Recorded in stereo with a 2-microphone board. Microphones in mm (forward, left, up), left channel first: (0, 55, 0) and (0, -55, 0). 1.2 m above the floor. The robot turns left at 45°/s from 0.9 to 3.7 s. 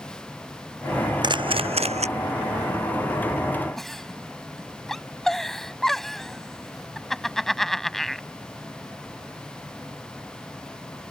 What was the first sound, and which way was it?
A camera shutter, 40° right (ahead or behind).